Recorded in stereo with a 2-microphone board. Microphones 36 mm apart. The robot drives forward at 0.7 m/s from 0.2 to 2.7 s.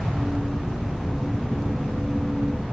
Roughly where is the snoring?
No snoring in this recording.